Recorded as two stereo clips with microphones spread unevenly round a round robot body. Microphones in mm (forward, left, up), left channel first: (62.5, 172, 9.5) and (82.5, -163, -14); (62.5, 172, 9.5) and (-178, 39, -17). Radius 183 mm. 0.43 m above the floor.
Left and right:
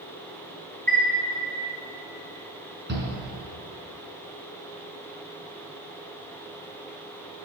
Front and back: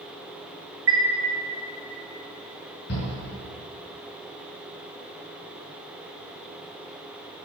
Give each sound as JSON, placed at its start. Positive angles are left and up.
{"t": 0.9, "sound": "a chime", "azimuth_deg": 180, "distance_m": 2.5}
{"t": 2.9, "sound": "a shout", "azimuth_deg": -30, "distance_m": 4.5}